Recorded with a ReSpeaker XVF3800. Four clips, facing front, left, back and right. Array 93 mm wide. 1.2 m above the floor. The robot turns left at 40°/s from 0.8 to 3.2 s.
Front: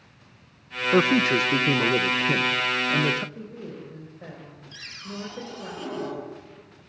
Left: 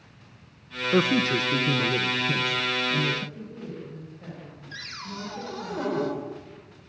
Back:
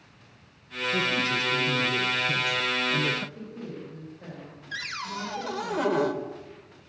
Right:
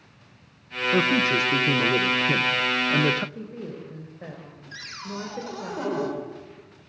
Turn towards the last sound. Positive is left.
turn(degrees=-170)